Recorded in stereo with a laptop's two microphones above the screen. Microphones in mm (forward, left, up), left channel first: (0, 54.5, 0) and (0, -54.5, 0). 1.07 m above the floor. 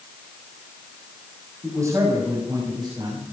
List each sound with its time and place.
1.6 s a man speaking: 25° right (ahead or behind), 6.5 m; by 3.2 s 40° right (ahead or behind), 6.5 m